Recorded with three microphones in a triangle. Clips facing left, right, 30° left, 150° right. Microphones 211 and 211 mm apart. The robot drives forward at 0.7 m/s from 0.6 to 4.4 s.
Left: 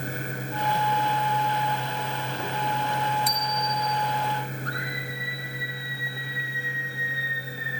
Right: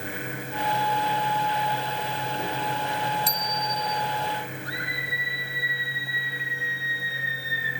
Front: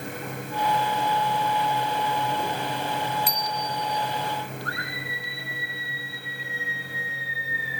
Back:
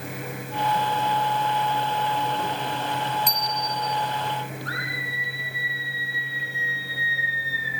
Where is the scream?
10° right, 9 m.